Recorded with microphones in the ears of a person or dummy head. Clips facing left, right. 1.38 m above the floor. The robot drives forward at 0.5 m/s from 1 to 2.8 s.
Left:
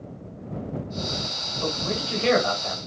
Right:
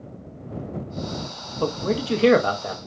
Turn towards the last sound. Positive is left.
turn(degrees=-45)  # may be behind; listen again after turning